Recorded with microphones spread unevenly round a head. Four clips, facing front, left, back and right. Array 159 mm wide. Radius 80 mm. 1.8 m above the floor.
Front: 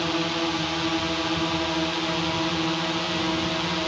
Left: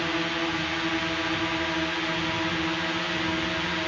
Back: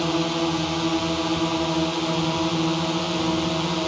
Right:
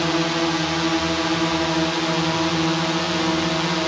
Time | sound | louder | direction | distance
0.0 | a drone | right 7 dB, back 3 dB | 120° right | ?